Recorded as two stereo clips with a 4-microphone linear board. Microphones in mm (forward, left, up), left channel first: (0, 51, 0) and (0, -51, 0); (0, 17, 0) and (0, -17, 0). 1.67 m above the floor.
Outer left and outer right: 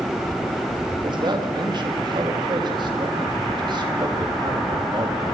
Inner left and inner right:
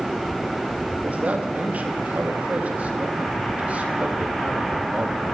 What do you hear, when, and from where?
1.0 s a man speaking: 50° right (ahead or behind), 4 m